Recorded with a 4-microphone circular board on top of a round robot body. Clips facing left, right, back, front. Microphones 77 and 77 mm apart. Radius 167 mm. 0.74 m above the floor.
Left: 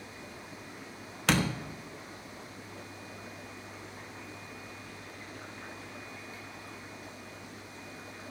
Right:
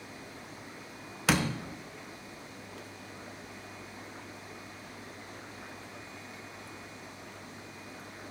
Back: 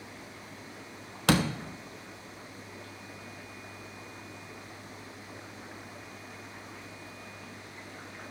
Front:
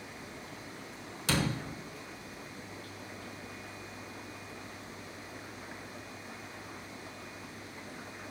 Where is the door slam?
175° right, 1.3 m.